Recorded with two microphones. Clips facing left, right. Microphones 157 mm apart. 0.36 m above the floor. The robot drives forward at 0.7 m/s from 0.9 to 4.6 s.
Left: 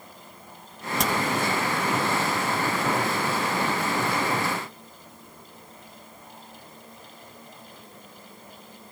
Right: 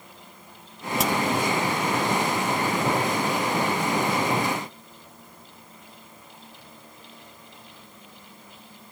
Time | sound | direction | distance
1.0 | a crack | centre (ahead or behind) | 1.9 m